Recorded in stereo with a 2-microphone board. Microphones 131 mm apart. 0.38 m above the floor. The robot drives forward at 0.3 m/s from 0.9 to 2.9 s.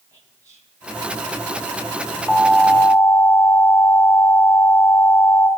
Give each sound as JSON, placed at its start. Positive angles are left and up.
{"t": 0.1, "sound": "whispering", "side_deg": -25, "distance_m": 3.0}
{"t": 2.3, "sound": "an alarm", "side_deg": 5, "distance_m": 1.9}